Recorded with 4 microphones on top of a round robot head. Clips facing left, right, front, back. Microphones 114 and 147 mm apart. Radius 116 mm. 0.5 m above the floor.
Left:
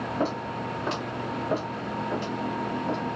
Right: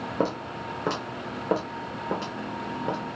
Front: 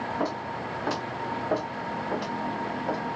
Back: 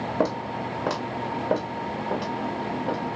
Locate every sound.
0.2 s footsteps: 145° right, 1.4 m; by 3.0 s 115° right, 2.5 m